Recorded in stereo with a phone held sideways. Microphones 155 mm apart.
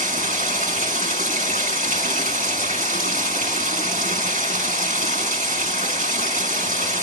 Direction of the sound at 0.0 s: 50° right (ahead or behind).